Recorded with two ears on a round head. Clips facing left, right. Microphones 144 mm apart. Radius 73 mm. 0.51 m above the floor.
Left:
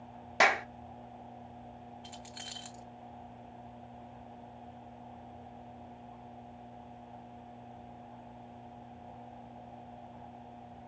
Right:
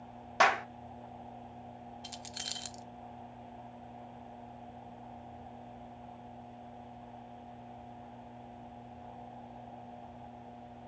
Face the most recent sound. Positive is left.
turn(degrees=-50)  # may be behind; listen again after turning